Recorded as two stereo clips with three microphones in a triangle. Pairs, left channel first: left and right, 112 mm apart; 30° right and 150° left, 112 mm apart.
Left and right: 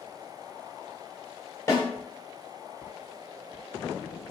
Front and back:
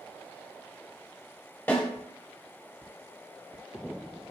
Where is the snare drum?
35° left, 1.3 m.